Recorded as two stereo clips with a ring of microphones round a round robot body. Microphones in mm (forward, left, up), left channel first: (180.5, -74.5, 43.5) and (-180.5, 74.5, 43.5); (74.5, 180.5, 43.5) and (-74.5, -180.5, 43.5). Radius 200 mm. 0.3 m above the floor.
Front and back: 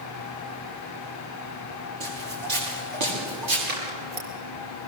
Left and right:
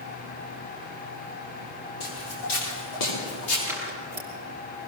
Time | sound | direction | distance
2.0 | footsteps | 120° left | 9.5 m
3.7 | scissors | 165° left | 5.5 m